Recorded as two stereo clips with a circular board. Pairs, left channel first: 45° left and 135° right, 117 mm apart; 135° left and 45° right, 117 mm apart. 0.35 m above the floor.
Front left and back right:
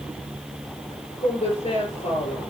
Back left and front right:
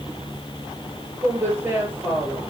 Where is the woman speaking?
25° left, 6 m.